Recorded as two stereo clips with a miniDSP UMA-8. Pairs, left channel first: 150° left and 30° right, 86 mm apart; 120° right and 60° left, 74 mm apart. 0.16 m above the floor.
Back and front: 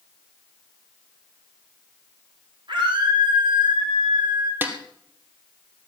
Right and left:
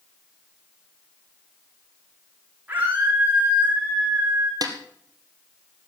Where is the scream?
10° right, 8 m.